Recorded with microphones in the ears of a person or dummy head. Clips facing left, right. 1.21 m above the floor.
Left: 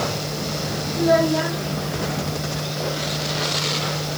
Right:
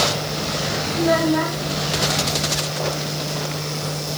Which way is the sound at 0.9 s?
85° right.